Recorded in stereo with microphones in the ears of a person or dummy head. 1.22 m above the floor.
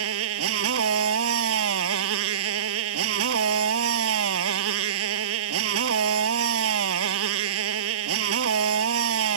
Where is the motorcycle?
75° right (ahead or behind).